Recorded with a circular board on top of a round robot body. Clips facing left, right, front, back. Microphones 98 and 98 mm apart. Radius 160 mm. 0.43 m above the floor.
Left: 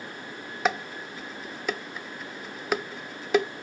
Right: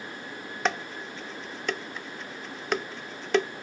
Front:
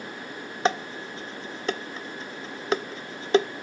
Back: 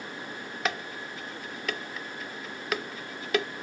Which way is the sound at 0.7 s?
10° left.